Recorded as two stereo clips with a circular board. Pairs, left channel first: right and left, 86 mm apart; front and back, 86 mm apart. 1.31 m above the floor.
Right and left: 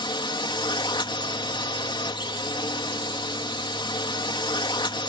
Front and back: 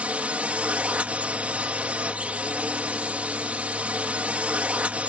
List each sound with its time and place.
0.0 s a drone: 105° right